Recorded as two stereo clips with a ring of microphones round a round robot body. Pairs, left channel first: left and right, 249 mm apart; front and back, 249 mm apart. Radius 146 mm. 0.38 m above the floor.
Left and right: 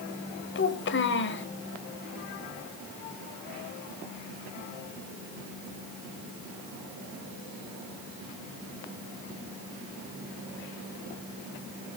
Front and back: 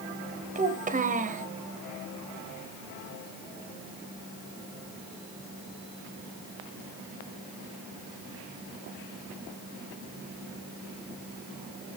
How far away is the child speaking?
About 1.9 m.